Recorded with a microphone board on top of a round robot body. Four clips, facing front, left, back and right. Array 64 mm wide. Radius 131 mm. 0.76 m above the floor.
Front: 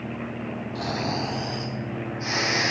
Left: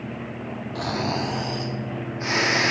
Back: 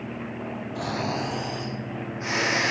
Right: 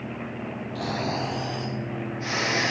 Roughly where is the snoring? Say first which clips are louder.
Left 2 dB, even; left.